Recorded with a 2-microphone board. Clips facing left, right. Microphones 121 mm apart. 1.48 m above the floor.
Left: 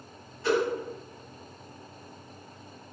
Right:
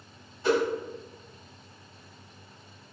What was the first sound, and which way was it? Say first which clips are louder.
A whoosh: right 1 dB; 25° right (ahead or behind).